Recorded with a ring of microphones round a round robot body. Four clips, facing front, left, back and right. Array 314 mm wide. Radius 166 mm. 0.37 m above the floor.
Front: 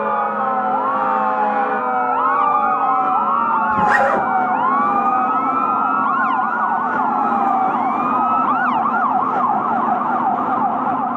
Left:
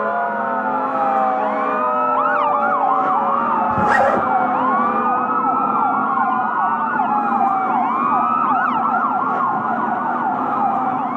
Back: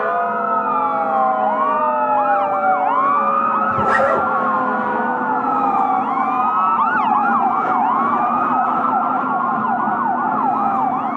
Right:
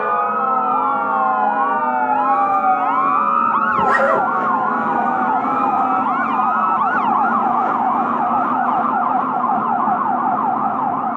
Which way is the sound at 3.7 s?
80° left.